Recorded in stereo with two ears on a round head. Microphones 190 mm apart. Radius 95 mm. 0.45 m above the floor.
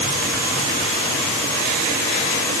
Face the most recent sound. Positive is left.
No sound to turn to.